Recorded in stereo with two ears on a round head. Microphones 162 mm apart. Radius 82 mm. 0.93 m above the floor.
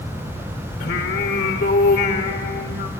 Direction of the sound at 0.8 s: 55° left (ahead or behind).